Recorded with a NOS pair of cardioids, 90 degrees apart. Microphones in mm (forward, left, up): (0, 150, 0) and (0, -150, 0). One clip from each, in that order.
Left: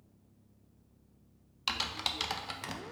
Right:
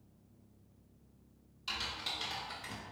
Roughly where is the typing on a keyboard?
Left.